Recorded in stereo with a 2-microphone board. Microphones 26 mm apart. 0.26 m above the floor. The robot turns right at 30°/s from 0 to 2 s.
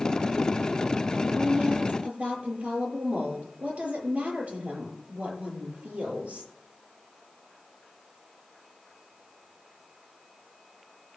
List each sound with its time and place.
1.4 s a woman speaking: 50° right (ahead or behind), 6.5 m; by 6.5 s 65° right (ahead or behind), 6.5 m